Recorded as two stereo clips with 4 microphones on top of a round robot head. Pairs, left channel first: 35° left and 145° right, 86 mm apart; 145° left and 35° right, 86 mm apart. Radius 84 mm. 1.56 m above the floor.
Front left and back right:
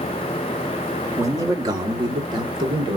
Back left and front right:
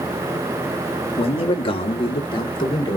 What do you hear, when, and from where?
1.2 s a man speaking: 160° left, 1.4 m; by 3.0 s straight behind, 2 m